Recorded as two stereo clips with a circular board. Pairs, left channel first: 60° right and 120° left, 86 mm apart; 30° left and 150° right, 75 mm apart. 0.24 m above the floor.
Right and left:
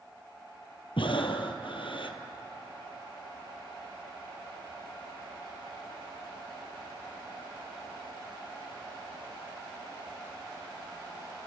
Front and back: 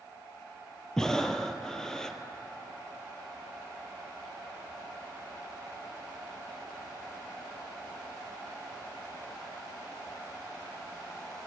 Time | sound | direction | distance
1.0 | breathing | 55° right | 0.9 m